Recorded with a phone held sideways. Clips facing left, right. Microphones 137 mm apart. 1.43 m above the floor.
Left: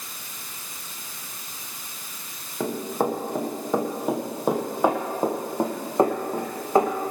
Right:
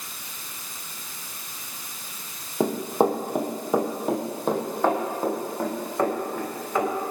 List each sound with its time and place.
2.6 s running footsteps: 30° right (ahead or behind), 3 m; by 7.1 s 40° left (ahead or behind), 5 m